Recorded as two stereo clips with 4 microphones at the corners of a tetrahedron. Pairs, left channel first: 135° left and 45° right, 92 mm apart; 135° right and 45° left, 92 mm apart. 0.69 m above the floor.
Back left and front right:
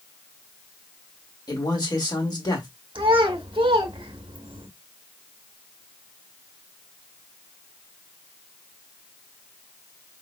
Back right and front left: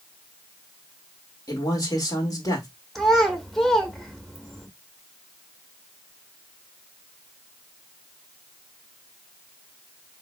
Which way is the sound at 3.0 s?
45° right.